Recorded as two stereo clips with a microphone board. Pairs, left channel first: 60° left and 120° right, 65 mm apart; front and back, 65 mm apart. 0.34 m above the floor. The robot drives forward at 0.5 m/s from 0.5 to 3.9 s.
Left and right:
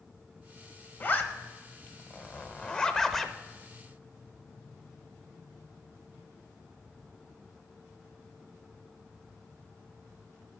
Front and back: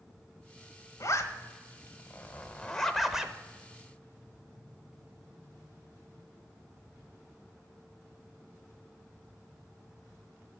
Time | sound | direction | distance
1.0 | a zipper | 10° left | 1.2 m